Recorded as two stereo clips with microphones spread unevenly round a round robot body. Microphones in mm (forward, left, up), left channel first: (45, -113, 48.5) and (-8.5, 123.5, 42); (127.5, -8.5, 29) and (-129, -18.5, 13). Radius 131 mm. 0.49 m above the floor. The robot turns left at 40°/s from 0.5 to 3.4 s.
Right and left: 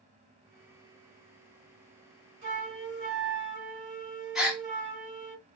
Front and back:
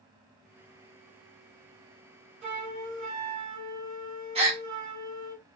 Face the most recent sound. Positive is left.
turn(degrees=-175)